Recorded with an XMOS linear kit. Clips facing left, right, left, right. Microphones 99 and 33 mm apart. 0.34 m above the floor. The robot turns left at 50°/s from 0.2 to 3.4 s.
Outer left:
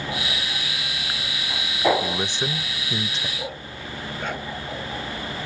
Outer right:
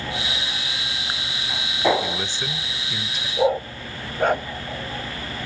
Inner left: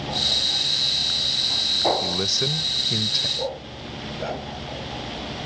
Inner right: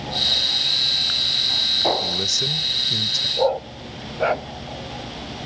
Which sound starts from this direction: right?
A dog barking, at 3.4 s.